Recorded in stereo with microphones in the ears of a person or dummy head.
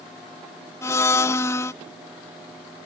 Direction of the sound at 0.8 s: 10° left (ahead or behind).